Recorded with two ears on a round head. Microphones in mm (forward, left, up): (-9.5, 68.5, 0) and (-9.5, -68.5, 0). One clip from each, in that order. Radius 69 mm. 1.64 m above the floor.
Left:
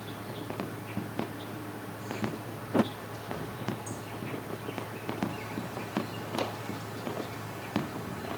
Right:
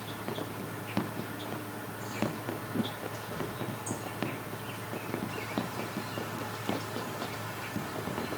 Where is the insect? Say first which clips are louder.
Right 3 dB; 15° right (ahead or behind), 2.5 m.